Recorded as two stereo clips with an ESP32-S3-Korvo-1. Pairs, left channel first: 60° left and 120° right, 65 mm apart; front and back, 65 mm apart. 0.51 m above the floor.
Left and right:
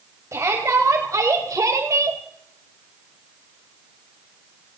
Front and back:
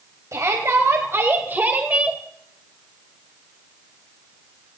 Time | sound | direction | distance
0.3 | a shout | 150° right | 3 m